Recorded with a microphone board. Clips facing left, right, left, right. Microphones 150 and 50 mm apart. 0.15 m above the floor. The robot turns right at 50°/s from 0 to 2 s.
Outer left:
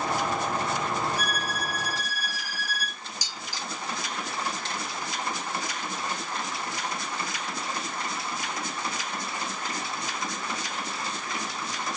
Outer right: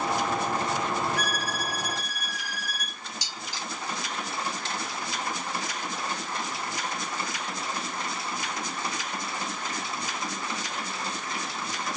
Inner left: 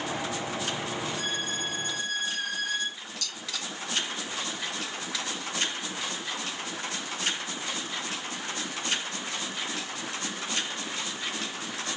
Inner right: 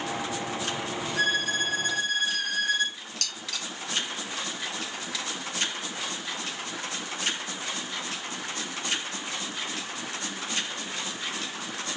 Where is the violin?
105° right, 0.8 m; by 3.0 s 65° right, 0.8 m.